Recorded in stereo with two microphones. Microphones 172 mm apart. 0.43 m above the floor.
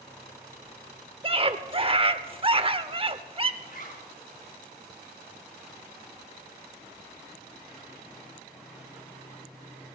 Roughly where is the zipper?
Left.